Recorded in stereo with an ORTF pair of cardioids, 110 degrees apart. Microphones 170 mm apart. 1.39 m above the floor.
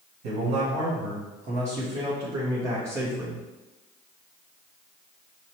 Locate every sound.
0.2 s a man speaking: 70° right, 1.5 m; by 3.4 s 5° right, 1.8 m